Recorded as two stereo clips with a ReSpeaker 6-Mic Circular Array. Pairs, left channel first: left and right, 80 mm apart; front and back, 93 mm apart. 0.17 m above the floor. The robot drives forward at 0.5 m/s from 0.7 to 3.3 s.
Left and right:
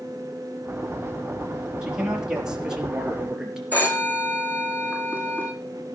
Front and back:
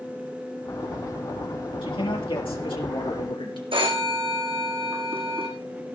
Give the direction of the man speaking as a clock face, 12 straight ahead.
12 o'clock.